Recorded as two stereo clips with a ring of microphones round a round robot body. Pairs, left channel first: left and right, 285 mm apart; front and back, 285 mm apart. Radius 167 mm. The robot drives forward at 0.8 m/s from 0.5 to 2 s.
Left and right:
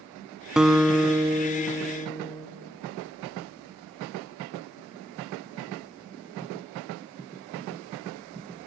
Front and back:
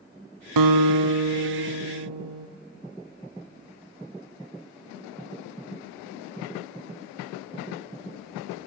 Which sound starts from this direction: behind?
A guitar, at 0.6 s.